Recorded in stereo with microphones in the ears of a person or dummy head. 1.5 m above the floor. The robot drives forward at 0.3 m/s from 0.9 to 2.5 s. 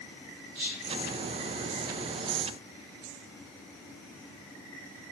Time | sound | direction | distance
0.6 | whispering | 50° right (ahead or behind) | 0.6 m